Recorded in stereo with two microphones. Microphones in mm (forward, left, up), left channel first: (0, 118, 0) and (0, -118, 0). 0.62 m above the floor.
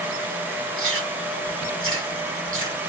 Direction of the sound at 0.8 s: 60° right (ahead or behind).